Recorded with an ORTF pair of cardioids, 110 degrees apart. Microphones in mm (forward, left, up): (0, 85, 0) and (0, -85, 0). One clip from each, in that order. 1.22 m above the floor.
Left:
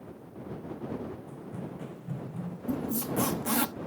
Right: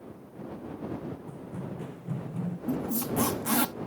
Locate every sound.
1.3 s running footsteps: 5° left; by 2.6 s 25° right
2.7 s a squeak: 5° right